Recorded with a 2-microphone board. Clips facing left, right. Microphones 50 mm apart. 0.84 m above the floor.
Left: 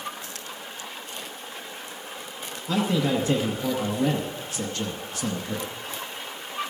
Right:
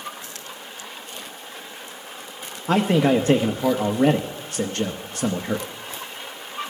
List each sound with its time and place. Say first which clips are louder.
2.7 s a man speaking: right 6 dB; 50° right (ahead or behind), 0.8 m